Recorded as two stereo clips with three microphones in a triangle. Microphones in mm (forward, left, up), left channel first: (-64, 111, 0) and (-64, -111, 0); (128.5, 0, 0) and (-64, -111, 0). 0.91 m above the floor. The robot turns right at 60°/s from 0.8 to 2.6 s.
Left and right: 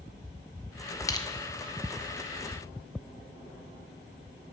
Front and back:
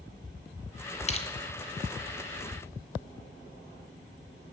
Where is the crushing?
30° left, 0.7 m; by 1.3 s 40° left, 0.7 m.